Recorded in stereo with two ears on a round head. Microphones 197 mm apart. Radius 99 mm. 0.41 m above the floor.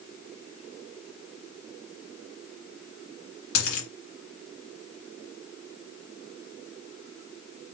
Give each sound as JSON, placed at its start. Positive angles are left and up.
{"t": 3.5, "sound": "a dropped coin", "side_deg": 65, "distance_m": 2.0}